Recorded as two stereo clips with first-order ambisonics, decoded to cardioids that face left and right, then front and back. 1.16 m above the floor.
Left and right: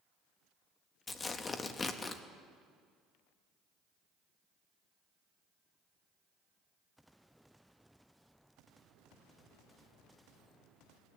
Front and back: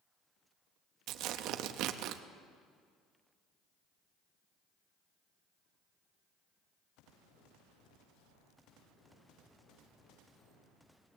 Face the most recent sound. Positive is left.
turn(degrees=160)